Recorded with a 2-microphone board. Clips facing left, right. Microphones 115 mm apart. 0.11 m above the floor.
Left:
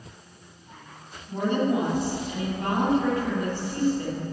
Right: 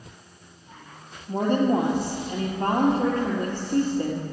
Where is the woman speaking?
45° right (ahead or behind), 2.5 m.